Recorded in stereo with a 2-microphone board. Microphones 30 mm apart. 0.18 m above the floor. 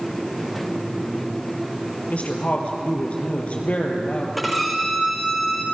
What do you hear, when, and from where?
2.1 s a woman speaking: 45° left (ahead or behind), 3.5 m
4.4 s a violin: centre (ahead or behind), 2.5 m